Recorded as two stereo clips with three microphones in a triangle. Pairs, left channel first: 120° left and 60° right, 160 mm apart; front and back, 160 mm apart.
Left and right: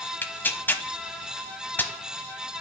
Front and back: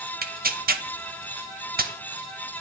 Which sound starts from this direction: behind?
Tearing paper, at 0.2 s.